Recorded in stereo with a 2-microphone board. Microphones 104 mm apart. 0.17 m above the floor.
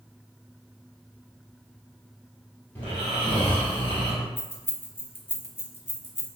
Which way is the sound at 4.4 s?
25° left (ahead or behind).